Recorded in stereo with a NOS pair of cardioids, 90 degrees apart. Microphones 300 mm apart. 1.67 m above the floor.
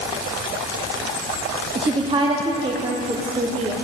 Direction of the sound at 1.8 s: 20° right.